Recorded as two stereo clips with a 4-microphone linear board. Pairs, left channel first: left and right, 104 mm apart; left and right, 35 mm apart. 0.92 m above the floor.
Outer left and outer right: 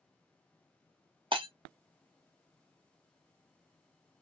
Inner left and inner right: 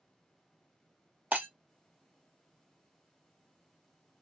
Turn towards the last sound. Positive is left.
turn(degrees=-50)  # may be behind; listen again after turning